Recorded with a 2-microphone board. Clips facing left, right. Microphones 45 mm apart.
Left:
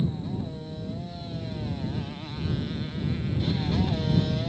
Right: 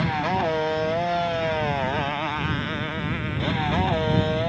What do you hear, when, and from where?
0.0 s a motorcycle: 70° right (ahead or behind); by 4.5 s 40° right (ahead or behind)